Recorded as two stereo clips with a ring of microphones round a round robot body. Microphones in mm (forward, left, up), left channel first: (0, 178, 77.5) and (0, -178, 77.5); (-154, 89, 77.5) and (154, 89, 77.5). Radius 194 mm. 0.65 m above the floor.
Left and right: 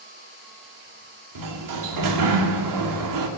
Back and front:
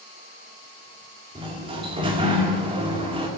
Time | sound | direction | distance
1.4 | a sliding door | 75° right | 2 m